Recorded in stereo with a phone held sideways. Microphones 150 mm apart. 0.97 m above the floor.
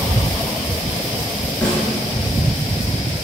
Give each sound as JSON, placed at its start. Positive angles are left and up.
{"t": 1.6, "sound": "a snare drum", "side_deg": 5, "distance_m": 3.5}